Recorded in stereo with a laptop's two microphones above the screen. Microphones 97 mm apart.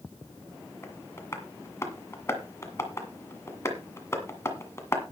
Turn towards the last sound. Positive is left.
turn(degrees=25)  # may be behind; listen again after turning